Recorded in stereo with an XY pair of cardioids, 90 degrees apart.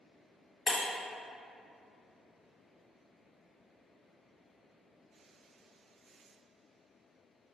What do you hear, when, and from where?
0.7 s breaking glass: 45° left, 1.1 m